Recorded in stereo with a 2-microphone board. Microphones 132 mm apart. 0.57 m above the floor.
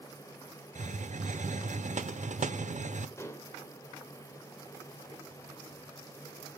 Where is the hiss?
65° right (ahead or behind), 0.6 m.